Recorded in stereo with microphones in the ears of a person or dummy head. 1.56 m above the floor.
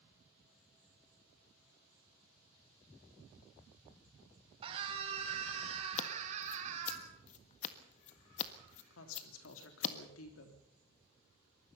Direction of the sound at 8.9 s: 85° left.